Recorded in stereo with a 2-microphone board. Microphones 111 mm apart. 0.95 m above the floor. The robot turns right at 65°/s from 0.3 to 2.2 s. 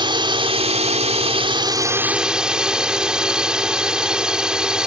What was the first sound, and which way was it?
A drone, 130° right.